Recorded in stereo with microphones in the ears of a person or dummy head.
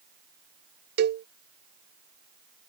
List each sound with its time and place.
1.0 s a cowbell: 55° right (ahead or behind)